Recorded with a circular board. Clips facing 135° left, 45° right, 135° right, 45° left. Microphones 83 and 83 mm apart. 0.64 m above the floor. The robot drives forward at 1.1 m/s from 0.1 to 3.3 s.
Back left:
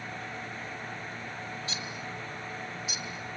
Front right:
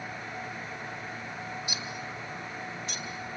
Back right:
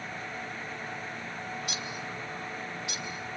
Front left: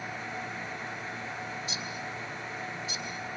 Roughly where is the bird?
Behind right.